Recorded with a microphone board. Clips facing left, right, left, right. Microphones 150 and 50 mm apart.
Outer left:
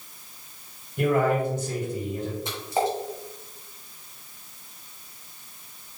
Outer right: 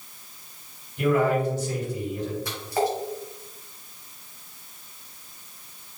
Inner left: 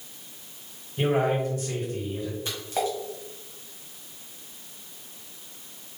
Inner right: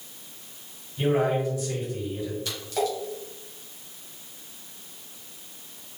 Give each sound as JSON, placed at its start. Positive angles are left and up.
{"t": 1.0, "sound": "a man speaking", "side_deg": 55, "distance_m": 2.0}
{"t": 2.5, "sound": "a splash", "side_deg": 25, "distance_m": 1.6}